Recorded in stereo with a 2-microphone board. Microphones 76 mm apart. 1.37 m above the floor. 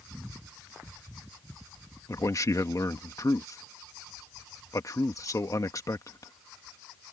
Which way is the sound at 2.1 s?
45° left (ahead or behind).